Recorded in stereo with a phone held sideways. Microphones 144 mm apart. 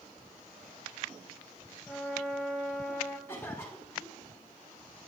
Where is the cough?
15° left (ahead or behind), 1.9 m.